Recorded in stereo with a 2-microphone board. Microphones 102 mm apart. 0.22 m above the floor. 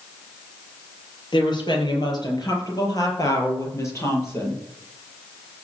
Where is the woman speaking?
45° left (ahead or behind), 5.5 m; by 4.6 s 25° left (ahead or behind), 6 m.